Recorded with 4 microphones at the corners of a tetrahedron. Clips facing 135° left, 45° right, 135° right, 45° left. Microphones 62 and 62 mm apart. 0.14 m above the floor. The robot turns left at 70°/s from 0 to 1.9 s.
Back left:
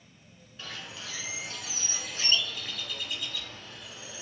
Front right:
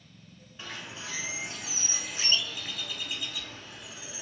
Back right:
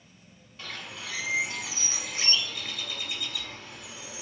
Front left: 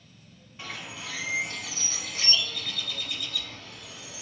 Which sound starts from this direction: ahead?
A bird, at 0.6 s.